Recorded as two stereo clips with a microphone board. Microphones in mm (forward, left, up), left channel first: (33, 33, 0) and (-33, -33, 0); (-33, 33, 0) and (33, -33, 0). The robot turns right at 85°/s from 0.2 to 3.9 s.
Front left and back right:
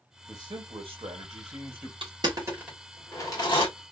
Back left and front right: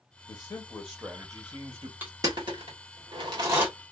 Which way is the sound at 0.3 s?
165° left.